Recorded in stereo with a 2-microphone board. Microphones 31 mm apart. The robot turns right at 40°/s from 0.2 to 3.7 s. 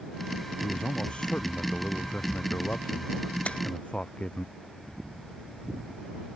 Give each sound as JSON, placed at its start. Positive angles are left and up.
{"t": 0.6, "sound": "a man speaking", "azimuth_deg": 15}
{"t": 3.5, "sound": "a splash", "side_deg": 50}